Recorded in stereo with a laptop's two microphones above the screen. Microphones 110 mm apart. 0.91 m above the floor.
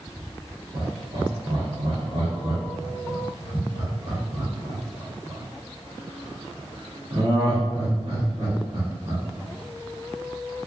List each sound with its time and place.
0.7 s laughter: 60° right (ahead or behind), 1.3 m